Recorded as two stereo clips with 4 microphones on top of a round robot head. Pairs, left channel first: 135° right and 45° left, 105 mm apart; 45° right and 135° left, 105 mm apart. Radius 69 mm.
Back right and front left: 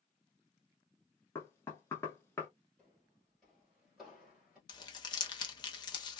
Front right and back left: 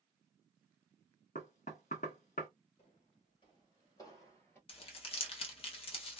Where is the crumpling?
85° right, 0.8 m.